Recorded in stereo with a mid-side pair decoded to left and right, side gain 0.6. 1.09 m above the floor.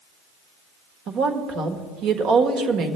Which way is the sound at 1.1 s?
60° right.